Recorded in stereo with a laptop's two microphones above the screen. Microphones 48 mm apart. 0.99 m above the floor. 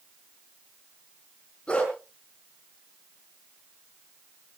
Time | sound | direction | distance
1.7 | a dog barking | 25° left (ahead or behind) | 4 m